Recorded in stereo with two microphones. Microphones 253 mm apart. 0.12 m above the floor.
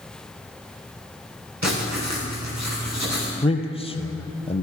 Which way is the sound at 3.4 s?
20° left (ahead or behind).